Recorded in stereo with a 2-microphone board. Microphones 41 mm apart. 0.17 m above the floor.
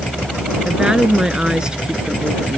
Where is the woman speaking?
20° right (ahead or behind).